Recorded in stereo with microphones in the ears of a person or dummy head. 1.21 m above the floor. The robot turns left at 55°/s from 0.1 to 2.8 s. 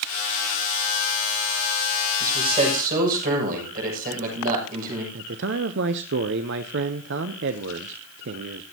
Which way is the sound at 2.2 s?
20° right.